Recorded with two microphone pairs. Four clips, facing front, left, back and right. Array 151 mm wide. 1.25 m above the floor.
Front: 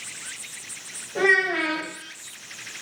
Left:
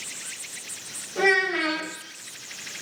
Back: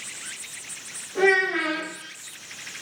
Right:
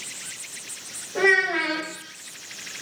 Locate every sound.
1.1 s a child speaking: 75° right, 5.5 m